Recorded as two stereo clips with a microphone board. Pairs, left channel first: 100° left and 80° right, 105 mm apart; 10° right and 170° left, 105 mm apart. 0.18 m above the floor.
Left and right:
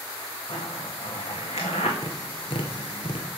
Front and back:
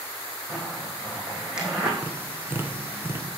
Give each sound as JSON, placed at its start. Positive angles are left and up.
{"t": 0.5, "sound": "a zipper", "azimuth_deg": 85, "distance_m": 2.5}
{"t": 2.0, "sound": "tapping", "azimuth_deg": 105, "distance_m": 1.3}